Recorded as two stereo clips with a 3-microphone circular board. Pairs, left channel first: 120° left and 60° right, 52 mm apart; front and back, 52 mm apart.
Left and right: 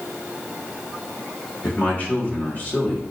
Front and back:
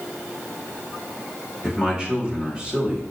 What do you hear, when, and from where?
1.6 s a man speaking: 120° left, 1.0 m